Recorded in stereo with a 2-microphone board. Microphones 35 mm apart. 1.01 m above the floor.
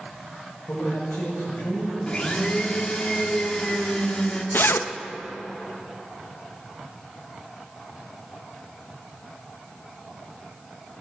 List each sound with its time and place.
0.7 s a man speaking: 80° left, 5 m
2.1 s a blender: 30° left (ahead or behind), 1.5 m
4.5 s a zipper: 85° left, 0.5 m